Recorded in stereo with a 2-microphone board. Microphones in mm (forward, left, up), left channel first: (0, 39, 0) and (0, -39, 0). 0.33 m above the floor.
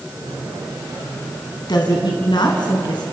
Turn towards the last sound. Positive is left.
turn(degrees=65)  # may be behind; listen again after turning